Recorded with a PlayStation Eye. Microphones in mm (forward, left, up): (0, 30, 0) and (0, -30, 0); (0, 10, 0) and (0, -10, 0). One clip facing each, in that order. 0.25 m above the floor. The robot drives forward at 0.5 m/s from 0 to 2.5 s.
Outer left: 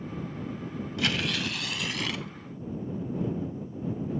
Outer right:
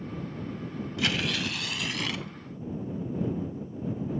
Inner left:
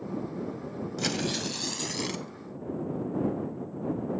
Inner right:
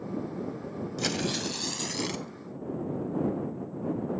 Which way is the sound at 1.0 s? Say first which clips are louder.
Even, even; centre (ahead or behind).